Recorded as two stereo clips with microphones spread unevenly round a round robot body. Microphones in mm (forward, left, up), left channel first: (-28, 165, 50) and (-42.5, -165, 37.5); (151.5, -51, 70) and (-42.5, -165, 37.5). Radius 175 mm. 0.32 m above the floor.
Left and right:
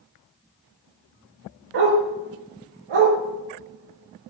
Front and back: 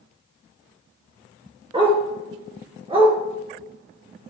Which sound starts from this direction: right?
A dog barking, at 1.7 s.